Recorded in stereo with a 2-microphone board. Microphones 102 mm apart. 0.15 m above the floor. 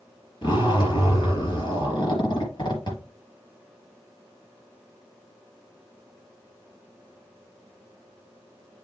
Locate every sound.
0.4 s a zipper: 45° left (ahead or behind), 3.5 m